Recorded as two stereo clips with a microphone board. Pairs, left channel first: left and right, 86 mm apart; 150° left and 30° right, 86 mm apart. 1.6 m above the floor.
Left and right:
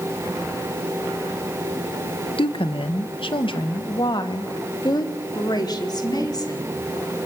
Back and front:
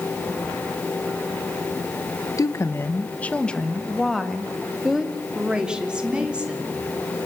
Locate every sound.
2.4 s a woman speaking: 100° left, 1.3 m; by 6.7 s 45° left, 4.5 m